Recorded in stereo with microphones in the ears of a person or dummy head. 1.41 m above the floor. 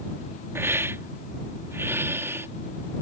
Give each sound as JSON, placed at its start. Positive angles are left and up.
{"t": 0.6, "sound": "a hiss", "side_deg": -10}